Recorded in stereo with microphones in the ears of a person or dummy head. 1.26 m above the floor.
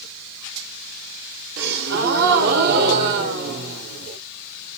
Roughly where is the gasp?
Right.